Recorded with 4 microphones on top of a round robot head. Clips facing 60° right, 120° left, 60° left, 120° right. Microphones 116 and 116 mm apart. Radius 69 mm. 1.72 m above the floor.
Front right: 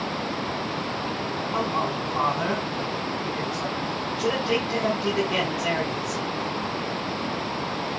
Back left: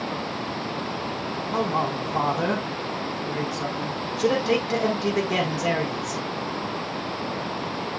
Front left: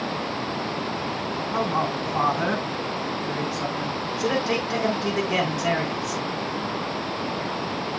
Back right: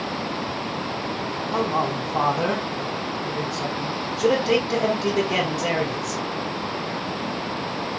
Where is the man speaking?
170° left, 4.5 m.